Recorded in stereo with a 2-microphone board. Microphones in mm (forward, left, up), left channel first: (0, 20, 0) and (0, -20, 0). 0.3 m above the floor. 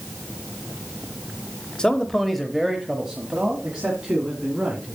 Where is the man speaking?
20° left (ahead or behind), 0.9 m; by 5.0 s 25° right (ahead or behind), 3 m.